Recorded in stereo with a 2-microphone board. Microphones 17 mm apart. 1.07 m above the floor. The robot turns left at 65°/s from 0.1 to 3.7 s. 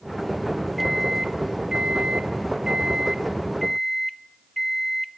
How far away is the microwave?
About 1.3 m.